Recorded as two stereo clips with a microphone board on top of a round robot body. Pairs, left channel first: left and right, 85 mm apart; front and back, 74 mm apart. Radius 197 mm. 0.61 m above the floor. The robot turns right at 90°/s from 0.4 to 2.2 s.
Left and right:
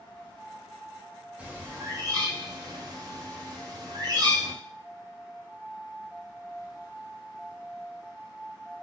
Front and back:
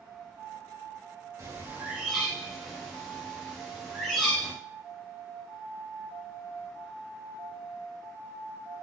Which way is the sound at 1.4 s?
160° right.